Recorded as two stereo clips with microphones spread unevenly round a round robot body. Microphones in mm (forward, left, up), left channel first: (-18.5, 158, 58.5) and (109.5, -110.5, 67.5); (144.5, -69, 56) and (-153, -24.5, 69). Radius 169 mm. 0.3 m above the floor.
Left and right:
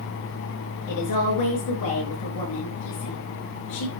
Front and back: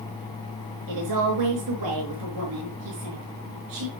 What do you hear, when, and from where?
0.9 s a woman speaking: 145° left, 5.5 m